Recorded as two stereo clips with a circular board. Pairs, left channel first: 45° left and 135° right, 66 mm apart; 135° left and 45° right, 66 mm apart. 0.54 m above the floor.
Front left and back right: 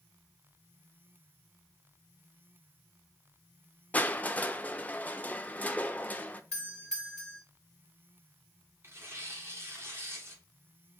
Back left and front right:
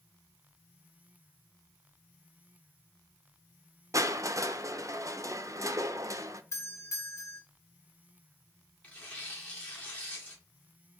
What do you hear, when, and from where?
3.9 s crushing: 20° right, 0.5 m
6.5 s a doorbell: 120° left, 1.8 m
8.8 s tearing paper: 160° right, 1.8 m